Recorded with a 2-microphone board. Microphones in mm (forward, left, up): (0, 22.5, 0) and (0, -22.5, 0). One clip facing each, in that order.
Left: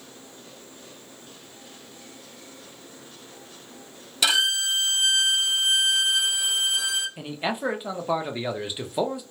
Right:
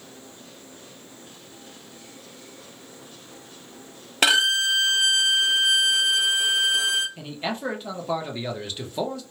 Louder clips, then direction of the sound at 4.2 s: Right 3 dB; 50° right (ahead or behind).